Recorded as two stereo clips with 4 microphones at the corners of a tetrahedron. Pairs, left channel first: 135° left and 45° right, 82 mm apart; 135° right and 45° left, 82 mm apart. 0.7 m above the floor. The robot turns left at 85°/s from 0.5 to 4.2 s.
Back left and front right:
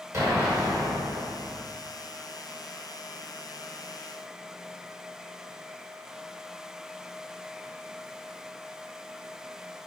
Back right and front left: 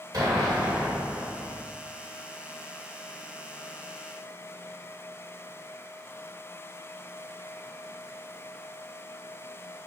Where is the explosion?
10° left, 1.1 m; by 1.6 s 85° right, 1.1 m.